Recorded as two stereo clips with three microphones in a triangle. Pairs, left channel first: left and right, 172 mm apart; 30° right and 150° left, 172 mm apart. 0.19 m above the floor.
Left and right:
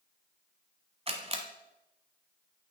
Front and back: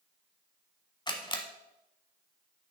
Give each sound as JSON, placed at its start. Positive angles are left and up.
{"t": 1.1, "sound": "a camera shutter", "azimuth_deg": -75, "distance_m": 0.9}